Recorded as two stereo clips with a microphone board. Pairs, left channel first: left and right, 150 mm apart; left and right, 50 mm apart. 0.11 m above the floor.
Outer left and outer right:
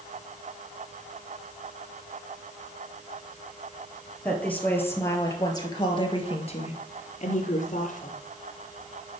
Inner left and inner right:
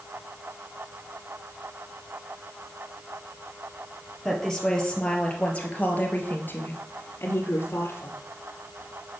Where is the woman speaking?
5° left (ahead or behind), 2 m; by 8.2 s 60° left (ahead or behind), 2 m.